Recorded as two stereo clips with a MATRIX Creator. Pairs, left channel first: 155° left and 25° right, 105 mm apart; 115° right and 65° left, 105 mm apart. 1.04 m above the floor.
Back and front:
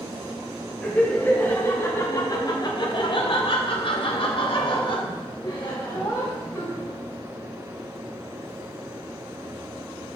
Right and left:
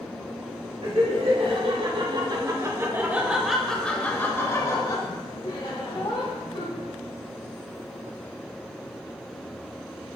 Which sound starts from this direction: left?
Laughter, at 0.8 s.